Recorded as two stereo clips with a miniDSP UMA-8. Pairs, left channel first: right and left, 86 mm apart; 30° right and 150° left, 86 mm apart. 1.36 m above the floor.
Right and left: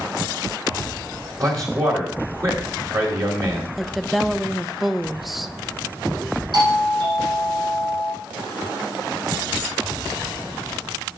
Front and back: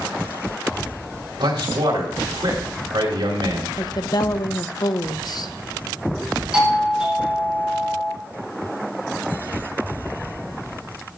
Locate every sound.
1.4 s a man speaking: 135° left, 3 m
3.8 s a woman speaking: straight ahead, 0.6 m
6.5 s a doorbell: 70° left, 5 m